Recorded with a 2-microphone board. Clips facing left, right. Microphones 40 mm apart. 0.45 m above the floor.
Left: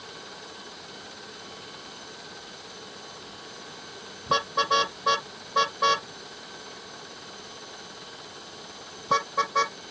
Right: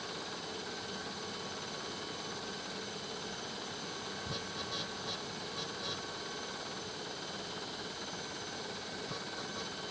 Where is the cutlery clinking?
No cutlery clinking in this recording.